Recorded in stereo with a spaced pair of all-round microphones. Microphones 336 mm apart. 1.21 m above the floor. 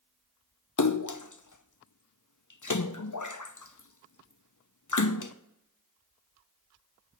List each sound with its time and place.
0.8 s a splash: 60° left (ahead or behind), 0.8 m